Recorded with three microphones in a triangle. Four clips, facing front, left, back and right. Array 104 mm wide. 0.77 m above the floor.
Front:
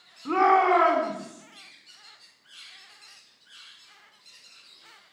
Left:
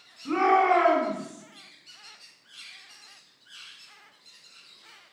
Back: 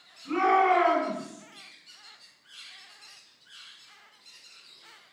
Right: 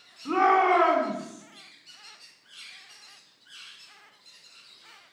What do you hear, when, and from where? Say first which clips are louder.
0.2 s a shout: even, front 3 dB; 20° right, 6 m